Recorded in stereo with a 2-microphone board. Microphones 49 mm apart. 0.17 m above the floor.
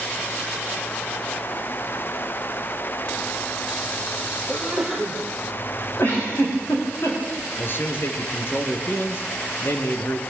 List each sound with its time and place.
4.5 s a sneeze: 5° right (ahead or behind), 4 m
6.0 s a giggle: 55° left (ahead or behind), 8 m
7.6 s a man speaking: 50° left (ahead or behind), 3 m